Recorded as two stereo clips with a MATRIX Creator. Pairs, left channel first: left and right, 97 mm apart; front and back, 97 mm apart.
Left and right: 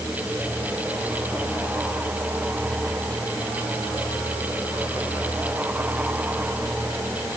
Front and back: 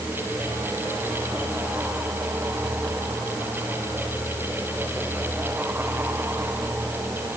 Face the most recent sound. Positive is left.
No sound to turn to.